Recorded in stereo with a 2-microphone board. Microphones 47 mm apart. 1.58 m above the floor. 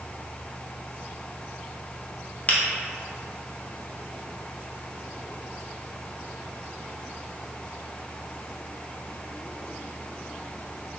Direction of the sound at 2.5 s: 30° left (ahead or behind).